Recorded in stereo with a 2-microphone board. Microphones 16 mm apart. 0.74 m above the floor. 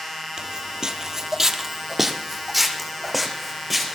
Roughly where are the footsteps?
Right.